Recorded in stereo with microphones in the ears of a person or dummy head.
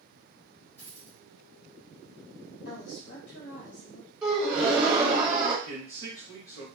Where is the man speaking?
15° left (ahead or behind), 2 m.